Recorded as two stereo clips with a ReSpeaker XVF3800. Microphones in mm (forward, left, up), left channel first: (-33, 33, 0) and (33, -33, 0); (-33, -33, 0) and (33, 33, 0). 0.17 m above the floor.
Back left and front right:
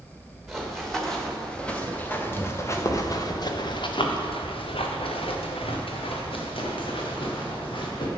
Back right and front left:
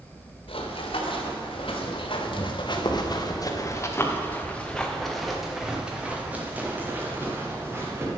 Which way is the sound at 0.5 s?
135° right.